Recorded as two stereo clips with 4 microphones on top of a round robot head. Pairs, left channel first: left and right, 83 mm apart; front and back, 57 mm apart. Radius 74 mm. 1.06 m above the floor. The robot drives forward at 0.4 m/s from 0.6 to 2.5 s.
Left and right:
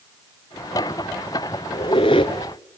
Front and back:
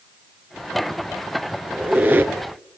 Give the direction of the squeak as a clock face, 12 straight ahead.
8 o'clock.